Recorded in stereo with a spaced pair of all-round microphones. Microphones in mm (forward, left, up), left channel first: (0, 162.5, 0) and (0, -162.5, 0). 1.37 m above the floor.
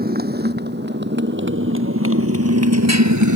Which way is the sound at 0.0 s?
30° right (ahead or behind).